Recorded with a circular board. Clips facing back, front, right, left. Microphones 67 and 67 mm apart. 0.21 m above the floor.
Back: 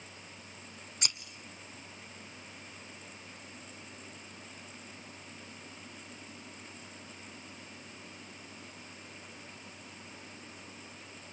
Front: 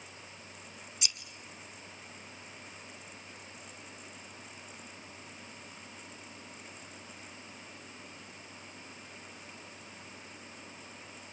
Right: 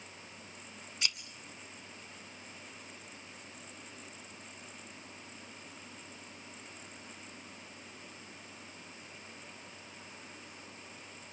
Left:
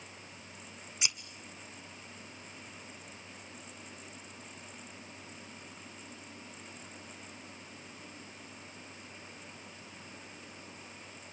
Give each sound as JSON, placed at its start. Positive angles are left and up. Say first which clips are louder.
{"t": 1.0, "sound": "scissors", "louder": "back 2 dB, even", "azimuth_deg": 160, "distance_m": 1.2}